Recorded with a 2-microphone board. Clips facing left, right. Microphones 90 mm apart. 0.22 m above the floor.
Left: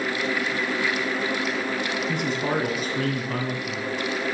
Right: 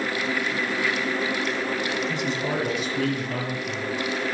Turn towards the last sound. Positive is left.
turn(degrees=45)  # may be behind; listen again after turning